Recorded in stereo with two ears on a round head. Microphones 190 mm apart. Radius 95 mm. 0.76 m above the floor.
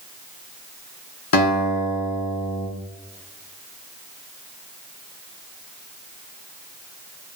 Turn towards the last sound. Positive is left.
turn(degrees=75)  # may be behind; listen again after turning